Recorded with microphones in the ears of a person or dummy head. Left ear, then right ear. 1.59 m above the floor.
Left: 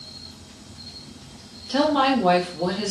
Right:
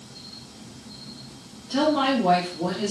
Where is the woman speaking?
35° left (ahead or behind), 0.9 m.